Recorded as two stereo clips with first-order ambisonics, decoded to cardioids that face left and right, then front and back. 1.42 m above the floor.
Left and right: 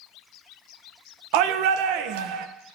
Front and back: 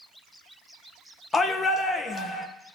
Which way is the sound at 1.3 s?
75° right.